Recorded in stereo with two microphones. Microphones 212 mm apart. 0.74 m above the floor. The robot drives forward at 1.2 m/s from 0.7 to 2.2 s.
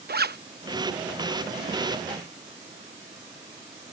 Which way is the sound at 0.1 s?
50° right (ahead or behind).